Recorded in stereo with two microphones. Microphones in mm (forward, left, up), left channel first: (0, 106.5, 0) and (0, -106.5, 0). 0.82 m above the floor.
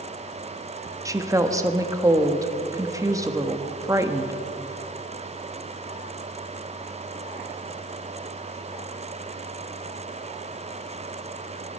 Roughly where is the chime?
No chime in this recording.